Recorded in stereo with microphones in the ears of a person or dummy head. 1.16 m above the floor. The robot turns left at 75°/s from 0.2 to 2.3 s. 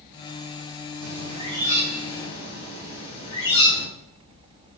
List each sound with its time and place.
1.0 s a bird: 115° right, 4.5 m; by 3.9 s 150° left, 4.5 m